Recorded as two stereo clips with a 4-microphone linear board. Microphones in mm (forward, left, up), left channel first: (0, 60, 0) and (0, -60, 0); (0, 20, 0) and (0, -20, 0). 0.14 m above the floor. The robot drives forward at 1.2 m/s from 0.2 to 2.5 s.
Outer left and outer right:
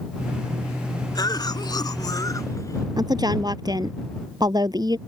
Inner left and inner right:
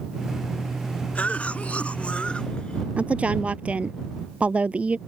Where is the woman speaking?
35° right (ahead or behind).